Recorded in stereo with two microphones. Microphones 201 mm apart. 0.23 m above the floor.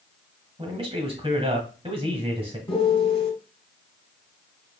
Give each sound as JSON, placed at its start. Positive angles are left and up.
{"t": 0.6, "sound": "a man speaking", "side_deg": -30, "distance_m": 1.2}
{"t": 2.7, "sound": "a piano", "side_deg": 30, "distance_m": 1.0}